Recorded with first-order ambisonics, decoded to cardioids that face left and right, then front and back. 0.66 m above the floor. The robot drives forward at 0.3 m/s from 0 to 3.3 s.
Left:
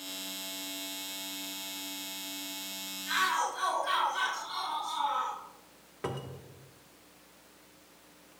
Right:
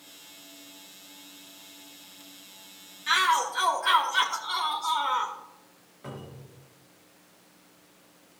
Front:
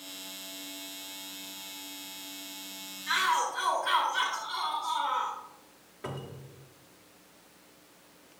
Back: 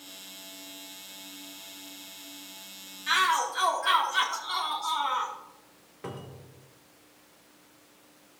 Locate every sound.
3.1 s a shout: 125° right, 1.1 m
6.0 s a cupboard door: 95° left, 1.3 m